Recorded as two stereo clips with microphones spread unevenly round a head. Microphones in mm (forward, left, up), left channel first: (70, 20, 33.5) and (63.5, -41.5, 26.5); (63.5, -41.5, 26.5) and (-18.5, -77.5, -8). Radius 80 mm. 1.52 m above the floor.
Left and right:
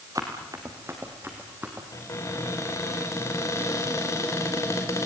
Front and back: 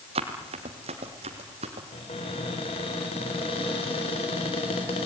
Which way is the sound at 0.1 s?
165° right.